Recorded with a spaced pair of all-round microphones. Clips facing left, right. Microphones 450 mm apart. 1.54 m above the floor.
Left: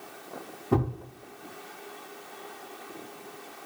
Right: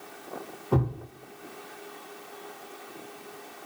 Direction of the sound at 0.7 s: 40° left (ahead or behind).